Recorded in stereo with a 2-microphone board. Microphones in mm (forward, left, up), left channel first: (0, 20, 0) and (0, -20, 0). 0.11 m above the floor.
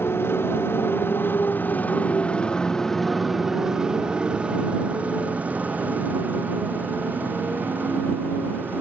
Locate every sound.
0.0 s a motorcycle: 80° left; by 8.8 s 50° right (ahead or behind)